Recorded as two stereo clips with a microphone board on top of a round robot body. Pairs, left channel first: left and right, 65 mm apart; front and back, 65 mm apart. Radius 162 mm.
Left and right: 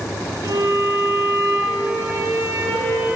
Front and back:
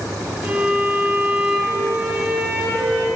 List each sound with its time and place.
0.4 s a violin: 115° right, 8 m